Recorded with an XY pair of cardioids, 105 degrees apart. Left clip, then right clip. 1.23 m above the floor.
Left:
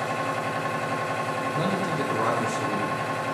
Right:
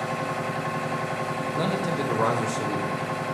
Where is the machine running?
20° left, 1.2 m.